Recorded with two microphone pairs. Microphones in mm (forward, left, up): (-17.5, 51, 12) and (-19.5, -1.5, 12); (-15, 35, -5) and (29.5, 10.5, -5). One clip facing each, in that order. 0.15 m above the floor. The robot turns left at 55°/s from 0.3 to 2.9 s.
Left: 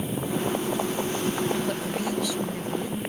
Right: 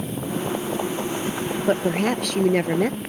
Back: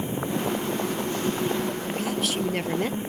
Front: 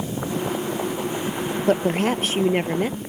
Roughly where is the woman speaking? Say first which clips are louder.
Right 7 dB, front 9 dB; ahead right.